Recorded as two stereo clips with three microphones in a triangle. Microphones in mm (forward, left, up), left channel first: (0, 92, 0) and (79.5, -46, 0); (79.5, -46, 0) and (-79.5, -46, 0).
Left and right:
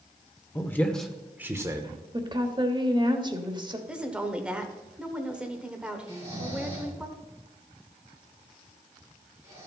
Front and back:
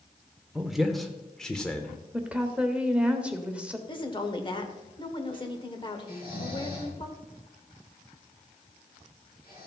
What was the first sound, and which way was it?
A man speaking, 95° left.